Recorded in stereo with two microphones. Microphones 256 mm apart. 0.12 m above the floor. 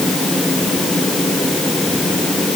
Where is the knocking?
No knocking in this recording.